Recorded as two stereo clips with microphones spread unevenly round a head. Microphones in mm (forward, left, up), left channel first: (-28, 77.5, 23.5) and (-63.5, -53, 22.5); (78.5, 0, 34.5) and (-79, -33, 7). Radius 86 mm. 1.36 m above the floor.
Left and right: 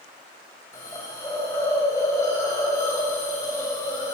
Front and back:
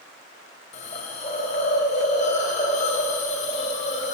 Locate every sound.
0.7 s a hiss: 5° left, 1.5 m